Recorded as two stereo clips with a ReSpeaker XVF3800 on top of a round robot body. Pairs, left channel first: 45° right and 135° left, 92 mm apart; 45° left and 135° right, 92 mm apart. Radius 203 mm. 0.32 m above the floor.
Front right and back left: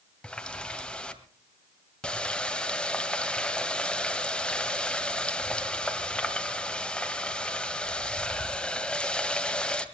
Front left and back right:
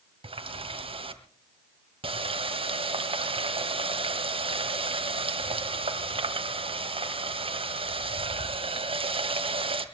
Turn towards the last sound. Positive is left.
turn(degrees=-125)